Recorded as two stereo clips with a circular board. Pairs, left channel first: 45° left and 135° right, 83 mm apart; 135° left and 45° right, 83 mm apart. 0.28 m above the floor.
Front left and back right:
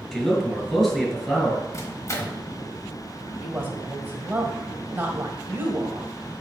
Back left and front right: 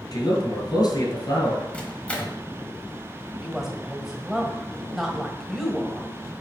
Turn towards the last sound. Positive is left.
turn(degrees=-125)